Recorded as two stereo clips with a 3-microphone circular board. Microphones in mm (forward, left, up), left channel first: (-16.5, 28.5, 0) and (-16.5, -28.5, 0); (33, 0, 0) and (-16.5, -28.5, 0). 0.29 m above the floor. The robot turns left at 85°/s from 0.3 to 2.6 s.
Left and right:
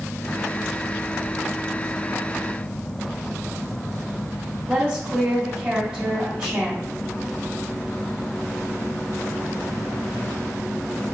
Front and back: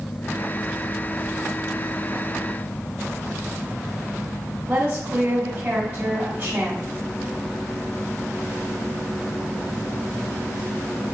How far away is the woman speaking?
About 1.0 m.